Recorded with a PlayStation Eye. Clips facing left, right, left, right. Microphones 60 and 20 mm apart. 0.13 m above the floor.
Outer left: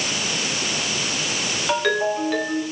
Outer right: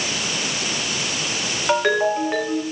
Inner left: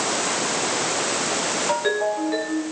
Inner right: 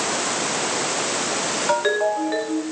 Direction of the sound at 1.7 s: 20° right (ahead or behind).